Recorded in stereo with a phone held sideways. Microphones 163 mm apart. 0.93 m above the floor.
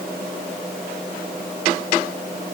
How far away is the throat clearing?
I don't hear throat clearing.